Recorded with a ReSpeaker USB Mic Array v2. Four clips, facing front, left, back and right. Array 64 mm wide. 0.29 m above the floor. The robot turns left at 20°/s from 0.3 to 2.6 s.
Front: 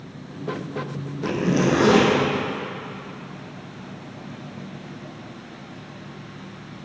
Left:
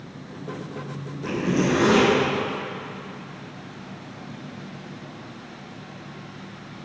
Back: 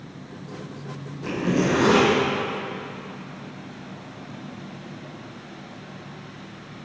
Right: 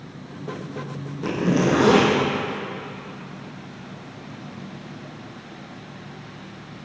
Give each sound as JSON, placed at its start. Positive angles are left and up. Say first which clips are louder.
{"t": 1.2, "sound": "a zipper", "louder": "right 2 dB, front 2 dB", "azimuth_deg": -50, "distance_m": 1.6}